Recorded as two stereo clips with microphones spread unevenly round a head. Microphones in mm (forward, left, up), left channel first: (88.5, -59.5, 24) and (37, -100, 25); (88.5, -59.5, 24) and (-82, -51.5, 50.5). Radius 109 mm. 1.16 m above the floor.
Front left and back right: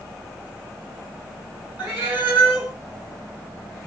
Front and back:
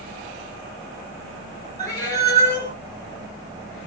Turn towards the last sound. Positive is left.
turn(degrees=-75)